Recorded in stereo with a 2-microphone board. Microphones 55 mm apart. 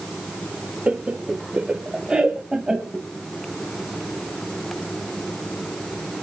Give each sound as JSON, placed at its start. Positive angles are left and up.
{"t": 0.9, "sound": "laughter", "side_deg": -20, "distance_m": 0.9}